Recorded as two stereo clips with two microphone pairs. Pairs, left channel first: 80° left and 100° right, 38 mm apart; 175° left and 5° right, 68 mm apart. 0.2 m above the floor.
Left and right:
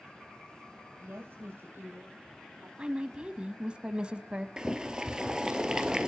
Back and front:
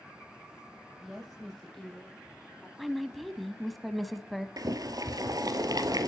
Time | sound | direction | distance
1.0 | a woman speaking | 95° right | 6.5 m
2.8 | a woman speaking | 95° right | 1.0 m
4.6 | boiling | 25° right | 1.4 m